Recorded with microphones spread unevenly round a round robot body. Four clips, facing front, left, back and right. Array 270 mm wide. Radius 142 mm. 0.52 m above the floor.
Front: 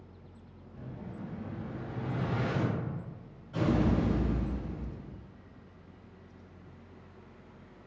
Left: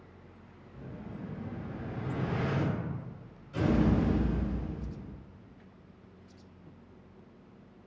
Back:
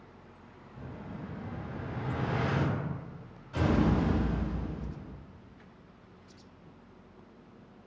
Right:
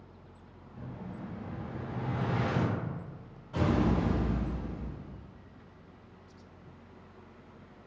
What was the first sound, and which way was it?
An explosion, 125° right.